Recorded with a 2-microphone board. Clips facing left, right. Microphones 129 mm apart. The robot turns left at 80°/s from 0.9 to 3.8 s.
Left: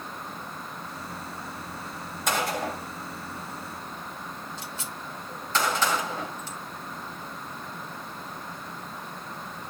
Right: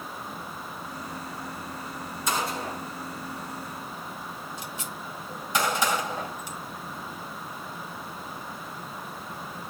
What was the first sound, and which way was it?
A gunshot, 60° left (ahead or behind).